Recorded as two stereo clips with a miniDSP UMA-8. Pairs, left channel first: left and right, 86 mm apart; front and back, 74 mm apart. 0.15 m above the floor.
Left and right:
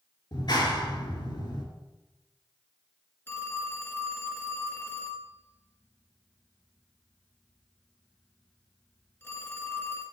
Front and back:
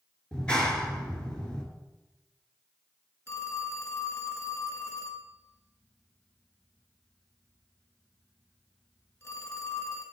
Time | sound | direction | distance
0.3 | a clap | 75° left | 2.5 m
3.3 | a phone ringing | 35° left | 1.5 m